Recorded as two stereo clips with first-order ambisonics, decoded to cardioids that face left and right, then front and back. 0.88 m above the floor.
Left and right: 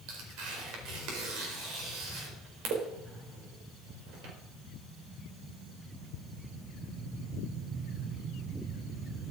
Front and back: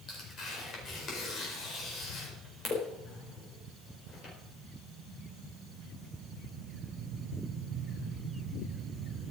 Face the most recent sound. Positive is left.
turn(degrees=-60)